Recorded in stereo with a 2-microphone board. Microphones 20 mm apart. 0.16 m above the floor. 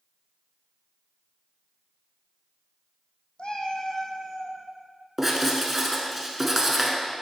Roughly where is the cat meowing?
Left.